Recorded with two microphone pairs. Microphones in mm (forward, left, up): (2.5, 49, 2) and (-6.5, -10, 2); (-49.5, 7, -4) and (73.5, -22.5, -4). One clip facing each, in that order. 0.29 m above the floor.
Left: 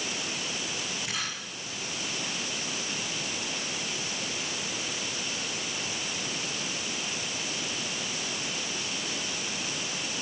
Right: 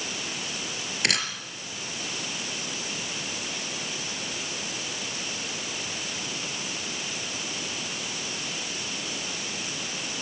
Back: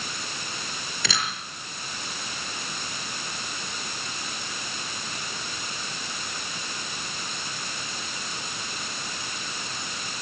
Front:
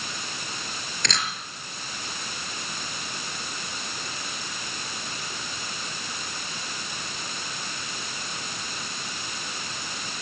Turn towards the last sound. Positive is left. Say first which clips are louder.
# right 11 dB, even
turn(degrees=-110)